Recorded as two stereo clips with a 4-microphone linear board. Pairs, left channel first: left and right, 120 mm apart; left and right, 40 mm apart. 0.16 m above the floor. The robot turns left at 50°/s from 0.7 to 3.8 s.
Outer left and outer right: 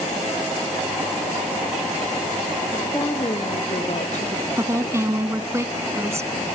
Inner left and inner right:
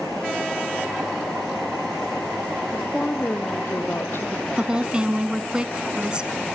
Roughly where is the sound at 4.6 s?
Right.